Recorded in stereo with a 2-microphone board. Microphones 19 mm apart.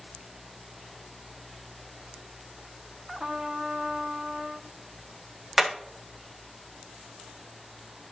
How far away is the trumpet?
About 1.3 m.